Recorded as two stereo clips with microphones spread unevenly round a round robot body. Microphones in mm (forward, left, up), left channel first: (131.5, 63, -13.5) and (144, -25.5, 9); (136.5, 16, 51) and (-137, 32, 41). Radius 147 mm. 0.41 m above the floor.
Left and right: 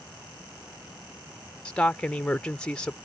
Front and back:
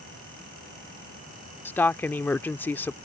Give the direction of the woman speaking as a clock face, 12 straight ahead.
9 o'clock.